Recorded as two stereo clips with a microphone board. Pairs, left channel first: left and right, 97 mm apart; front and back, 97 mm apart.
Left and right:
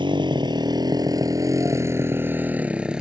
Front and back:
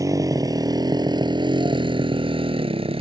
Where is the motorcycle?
125° right; by 3.0 s 170° right.